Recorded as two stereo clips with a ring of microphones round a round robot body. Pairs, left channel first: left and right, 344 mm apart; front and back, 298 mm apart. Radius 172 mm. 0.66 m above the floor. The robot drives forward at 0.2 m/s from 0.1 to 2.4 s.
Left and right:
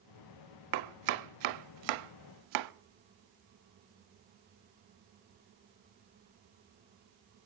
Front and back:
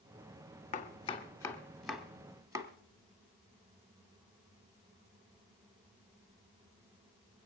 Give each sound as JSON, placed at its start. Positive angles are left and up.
{"t": 0.7, "sound": "chopping", "azimuth_deg": -70, "distance_m": 0.7}